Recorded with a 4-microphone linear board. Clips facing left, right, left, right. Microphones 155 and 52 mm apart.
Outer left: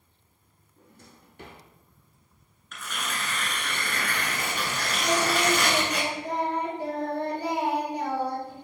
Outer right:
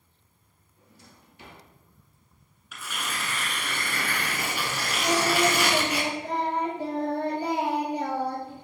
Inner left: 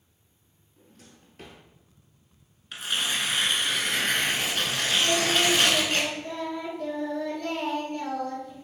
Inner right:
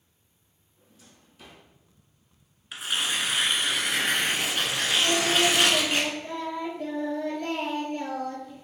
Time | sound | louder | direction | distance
0.8 | a drawer | outer left 2 dB, inner left 3 dB | 55° left (ahead or behind) | 0.9 m
2.7 | tearing paper | even, even | 5° right (ahead or behind) | 0.8 m
5.0 | singing | outer right 1 dB, even | 15° right (ahead or behind) | 1.7 m